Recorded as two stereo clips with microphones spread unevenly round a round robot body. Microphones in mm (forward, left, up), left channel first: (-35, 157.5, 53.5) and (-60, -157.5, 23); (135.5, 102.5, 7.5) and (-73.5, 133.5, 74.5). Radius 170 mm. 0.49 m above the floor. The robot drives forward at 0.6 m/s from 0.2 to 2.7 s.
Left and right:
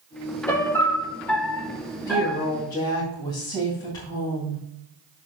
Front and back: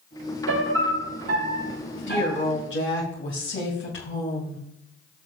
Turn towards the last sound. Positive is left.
turn(degrees=5)